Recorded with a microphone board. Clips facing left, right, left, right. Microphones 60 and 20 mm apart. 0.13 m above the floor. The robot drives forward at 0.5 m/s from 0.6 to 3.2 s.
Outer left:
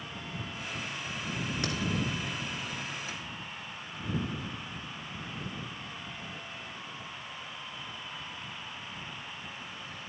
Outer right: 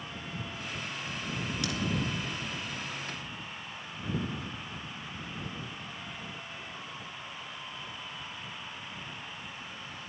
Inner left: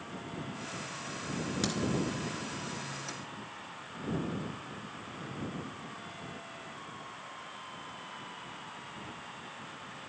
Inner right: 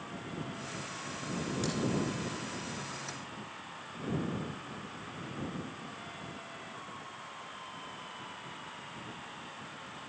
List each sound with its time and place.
1.6 s a crack: 35° left (ahead or behind), 2.5 m